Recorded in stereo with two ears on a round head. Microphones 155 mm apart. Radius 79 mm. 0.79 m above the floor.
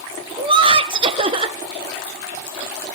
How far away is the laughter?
About 0.6 m.